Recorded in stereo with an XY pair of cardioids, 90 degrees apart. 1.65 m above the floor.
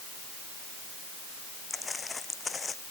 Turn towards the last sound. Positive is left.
turn(degrees=40)